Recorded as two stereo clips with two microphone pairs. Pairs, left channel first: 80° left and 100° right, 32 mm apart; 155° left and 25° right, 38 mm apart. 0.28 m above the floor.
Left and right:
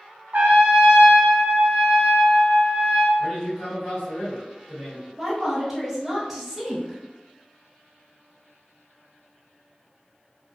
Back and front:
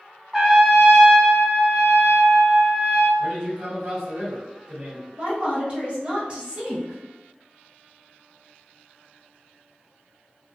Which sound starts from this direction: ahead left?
A man speaking, at 3.2 s.